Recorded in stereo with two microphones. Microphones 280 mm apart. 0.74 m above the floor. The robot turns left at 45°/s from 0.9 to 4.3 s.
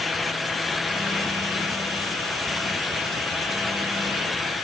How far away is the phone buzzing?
I don't hear a phone buzzing.